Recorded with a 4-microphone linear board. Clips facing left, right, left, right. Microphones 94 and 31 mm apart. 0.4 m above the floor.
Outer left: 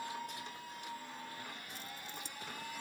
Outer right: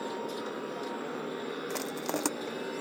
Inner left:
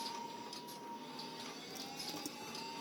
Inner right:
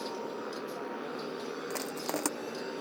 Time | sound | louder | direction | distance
0.0 | a motorcycle | outer right 8 dB, inner right 8 dB | 75° right (ahead or behind) | ?
1.7 | crushing | outer right 15 dB, inner right 12 dB | 75° right (ahead or behind) | ?